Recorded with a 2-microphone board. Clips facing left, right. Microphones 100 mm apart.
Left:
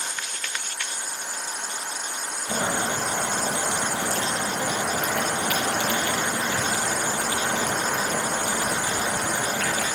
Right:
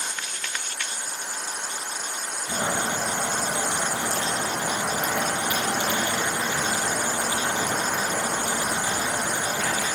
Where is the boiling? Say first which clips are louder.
Left 1 dB; 65° left (ahead or behind), 3.5 m.